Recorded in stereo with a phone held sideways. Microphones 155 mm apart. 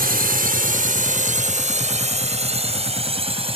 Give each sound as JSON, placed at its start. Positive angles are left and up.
{"t": 0.0, "sound": "a drone", "side_deg": -75}